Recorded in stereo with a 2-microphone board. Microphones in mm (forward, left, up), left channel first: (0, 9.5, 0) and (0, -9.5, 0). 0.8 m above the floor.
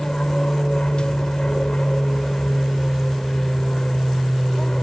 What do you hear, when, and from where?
0.0 s an aircraft: 50° left (ahead or behind)